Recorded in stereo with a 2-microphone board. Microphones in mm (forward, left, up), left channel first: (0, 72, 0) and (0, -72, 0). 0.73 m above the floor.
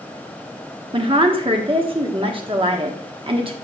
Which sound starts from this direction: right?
A woman speaking, at 0.9 s.